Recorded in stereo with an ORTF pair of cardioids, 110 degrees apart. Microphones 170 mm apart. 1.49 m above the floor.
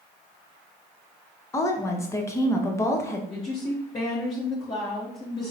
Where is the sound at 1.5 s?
15° left, 0.9 m.